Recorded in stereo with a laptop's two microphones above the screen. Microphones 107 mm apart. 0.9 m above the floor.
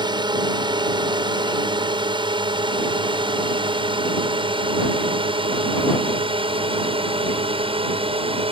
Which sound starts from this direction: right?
A drone, at 0.0 s.